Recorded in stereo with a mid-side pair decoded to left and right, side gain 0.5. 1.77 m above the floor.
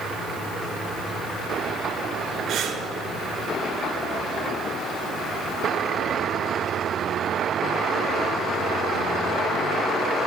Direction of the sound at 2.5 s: 65° right.